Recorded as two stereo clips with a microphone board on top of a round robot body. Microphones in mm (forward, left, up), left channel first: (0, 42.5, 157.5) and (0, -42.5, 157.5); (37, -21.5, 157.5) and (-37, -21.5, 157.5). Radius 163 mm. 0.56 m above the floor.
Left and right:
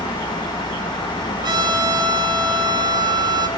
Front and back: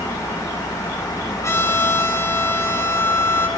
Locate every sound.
1.4 s a trumpet: 55° right, 7.5 m